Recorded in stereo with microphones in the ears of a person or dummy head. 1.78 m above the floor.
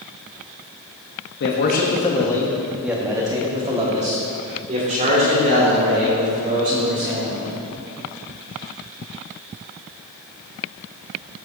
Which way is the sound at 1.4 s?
55° left (ahead or behind).